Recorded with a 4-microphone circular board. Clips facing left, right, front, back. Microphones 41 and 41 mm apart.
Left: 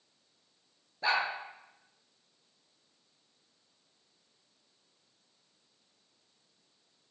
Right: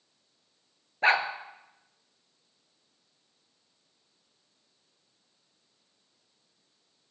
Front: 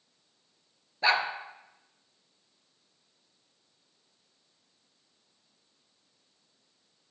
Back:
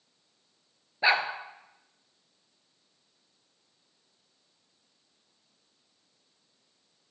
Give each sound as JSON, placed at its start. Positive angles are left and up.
{"t": 1.0, "sound": "a dog barking", "azimuth_deg": -110, "distance_m": 1.2}